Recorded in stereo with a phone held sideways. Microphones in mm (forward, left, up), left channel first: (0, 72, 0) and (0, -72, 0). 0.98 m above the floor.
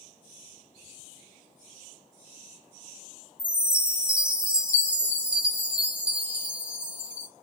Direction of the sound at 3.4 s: 10° right (ahead or behind).